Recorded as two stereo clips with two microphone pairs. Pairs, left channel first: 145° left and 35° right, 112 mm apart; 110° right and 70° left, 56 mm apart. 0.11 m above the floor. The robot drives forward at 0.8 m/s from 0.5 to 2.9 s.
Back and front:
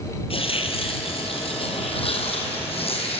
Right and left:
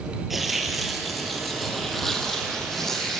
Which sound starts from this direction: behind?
Tearing paper, at 0.3 s.